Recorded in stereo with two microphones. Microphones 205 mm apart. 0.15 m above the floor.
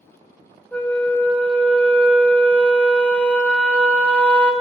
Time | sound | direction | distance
0.7 | a flute | 5° left (ahead or behind) | 0.5 m